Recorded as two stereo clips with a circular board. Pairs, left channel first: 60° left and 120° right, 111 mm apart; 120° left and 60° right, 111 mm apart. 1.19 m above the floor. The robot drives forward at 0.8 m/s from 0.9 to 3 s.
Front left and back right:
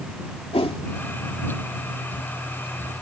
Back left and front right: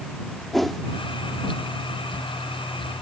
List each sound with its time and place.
0.5 s a whoosh: 30° left